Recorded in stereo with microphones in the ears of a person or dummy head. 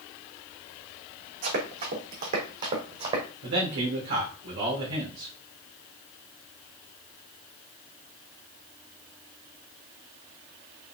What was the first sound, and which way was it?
Running footsteps, 55° right (ahead or behind).